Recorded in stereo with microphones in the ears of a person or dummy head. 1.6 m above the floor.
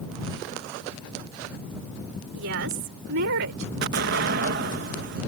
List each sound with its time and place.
2.3 s a woman speaking: 60° right (ahead or behind); by 3.7 s 65° right (ahead or behind)
3.8 s an explosion: 55° right (ahead or behind)